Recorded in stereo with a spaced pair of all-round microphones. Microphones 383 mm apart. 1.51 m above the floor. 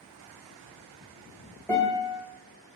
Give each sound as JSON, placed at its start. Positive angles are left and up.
{"t": 1.7, "sound": "a guitar", "side_deg": 5, "distance_m": 1.4}